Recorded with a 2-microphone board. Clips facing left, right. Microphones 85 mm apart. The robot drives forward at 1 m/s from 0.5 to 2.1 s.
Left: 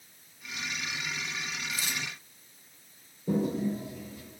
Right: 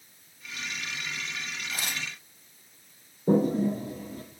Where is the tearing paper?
55° right (ahead or behind), 2.0 m; by 2.1 s 60° right (ahead or behind), 2.0 m.